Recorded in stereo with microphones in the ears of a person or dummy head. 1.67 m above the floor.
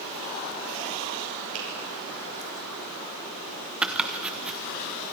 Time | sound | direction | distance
1.5 | a finger snap | 75° right (ahead or behind) | 6 m
3.8 | chopping | centre (ahead or behind) | 0.8 m